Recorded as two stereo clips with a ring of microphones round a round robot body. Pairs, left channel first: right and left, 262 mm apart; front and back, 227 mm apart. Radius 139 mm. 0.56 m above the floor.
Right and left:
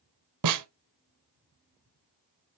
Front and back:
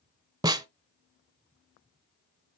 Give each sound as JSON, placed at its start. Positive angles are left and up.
{"t": 0.4, "sound": "a snare drum", "azimuth_deg": 105, "distance_m": 0.9}